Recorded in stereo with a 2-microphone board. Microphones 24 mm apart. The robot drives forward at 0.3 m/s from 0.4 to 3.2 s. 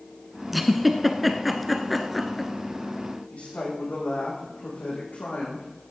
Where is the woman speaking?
70° left (ahead or behind), 7.5 m.